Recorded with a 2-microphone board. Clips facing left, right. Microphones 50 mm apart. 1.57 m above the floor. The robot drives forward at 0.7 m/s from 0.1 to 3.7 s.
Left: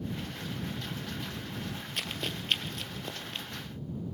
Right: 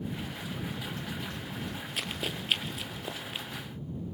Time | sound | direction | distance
2.0 | running footsteps | 5° right (ahead or behind) | 2.5 m